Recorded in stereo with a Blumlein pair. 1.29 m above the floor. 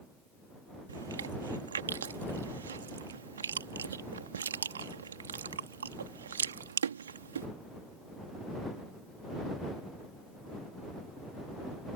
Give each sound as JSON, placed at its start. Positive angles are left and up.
{"t": 0.9, "sound": "chewing", "azimuth_deg": -70}